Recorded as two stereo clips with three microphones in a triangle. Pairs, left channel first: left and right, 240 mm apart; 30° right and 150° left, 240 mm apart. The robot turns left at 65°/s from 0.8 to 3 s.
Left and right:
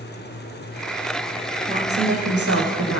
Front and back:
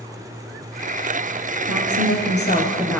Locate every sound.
1.7 s a woman speaking: 30° right, 7.5 m; by 3.0 s 115° right, 7.5 m